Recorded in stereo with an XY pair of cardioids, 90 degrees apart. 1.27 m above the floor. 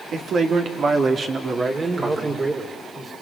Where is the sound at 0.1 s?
65° right, 4 m; by 2.4 s 30° right, 4 m.